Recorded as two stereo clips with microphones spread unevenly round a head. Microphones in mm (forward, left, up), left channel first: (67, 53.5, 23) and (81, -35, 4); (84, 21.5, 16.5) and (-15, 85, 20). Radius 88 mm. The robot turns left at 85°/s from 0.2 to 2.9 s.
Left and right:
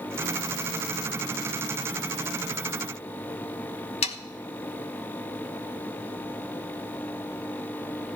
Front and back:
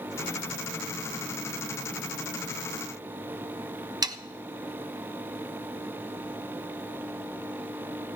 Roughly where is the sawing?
Left.